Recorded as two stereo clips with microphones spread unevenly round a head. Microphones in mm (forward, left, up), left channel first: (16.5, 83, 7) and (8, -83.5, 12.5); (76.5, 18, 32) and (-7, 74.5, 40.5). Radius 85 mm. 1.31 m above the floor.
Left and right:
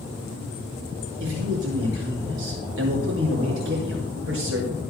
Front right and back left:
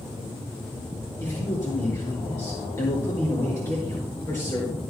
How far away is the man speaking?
About 5.5 m.